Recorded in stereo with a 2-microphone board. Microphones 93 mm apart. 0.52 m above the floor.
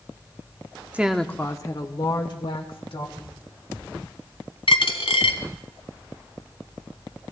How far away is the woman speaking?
About 0.8 m.